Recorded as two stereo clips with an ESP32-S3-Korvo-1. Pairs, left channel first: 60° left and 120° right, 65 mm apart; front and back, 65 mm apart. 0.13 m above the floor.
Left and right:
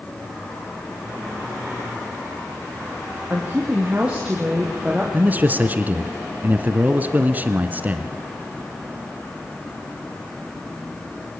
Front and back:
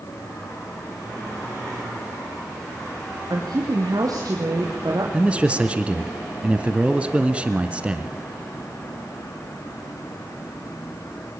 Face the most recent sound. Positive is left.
turn(degrees=-135)